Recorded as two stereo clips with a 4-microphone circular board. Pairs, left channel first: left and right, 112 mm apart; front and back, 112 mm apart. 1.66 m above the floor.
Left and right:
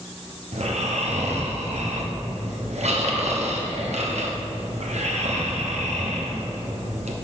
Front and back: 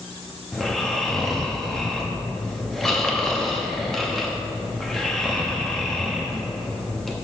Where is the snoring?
85° right, 1.0 m.